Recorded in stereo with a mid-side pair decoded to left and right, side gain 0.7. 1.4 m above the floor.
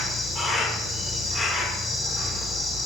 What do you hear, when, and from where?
0.0 s an insect: 10° left, 0.7 m